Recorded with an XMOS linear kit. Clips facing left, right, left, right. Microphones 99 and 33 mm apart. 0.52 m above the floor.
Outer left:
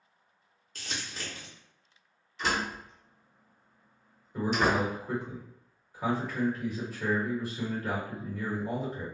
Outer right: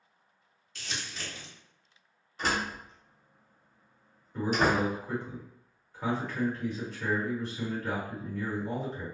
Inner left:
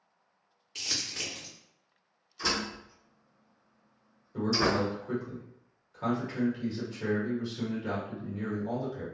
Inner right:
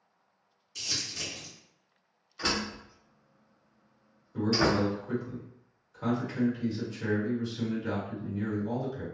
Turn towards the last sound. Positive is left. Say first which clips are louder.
# even, inner right 1 dB
turn(degrees=10)  # may be behind; listen again after turning